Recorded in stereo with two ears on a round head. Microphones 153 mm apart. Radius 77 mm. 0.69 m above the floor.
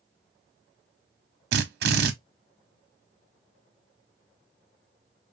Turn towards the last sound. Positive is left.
turn(degrees=-70)  # may be behind; listen again after turning